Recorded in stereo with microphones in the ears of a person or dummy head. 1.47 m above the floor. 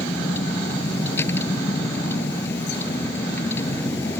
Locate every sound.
0.0 s a vehicle: 10° left (ahead or behind)